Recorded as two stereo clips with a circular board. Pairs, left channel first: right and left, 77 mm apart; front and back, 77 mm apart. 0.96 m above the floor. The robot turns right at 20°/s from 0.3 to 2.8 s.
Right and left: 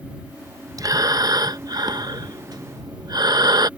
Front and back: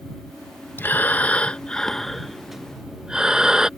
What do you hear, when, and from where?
0.8 s breathing: 60° left; by 3.7 s 100° left